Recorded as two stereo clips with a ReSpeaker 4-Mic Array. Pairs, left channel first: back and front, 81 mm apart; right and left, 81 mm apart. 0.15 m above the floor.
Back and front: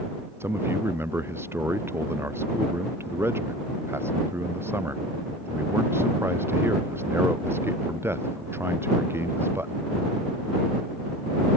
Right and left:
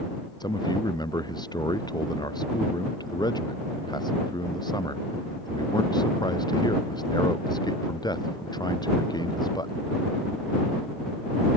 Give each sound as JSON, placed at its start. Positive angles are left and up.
{"t": 0.4, "sound": "a man speaking", "azimuth_deg": -60}